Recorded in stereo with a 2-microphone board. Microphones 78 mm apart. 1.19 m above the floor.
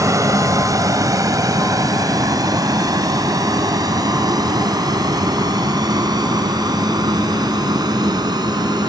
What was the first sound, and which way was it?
A vehicle, 50° right (ahead or behind).